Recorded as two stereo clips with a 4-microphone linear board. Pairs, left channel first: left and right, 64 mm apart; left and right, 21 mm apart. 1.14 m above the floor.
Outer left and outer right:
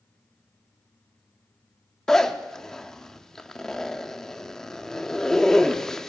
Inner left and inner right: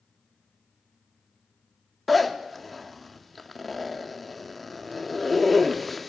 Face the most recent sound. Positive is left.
turn(degrees=5)  # may be behind; listen again after turning